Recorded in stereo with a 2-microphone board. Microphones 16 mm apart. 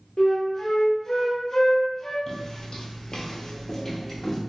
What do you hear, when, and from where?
0.2 s a flute: 35° left (ahead or behind), 0.5 m
2.3 s footsteps: 30° left (ahead or behind), 0.8 m; by 4.4 s 20° left (ahead or behind), 1.2 m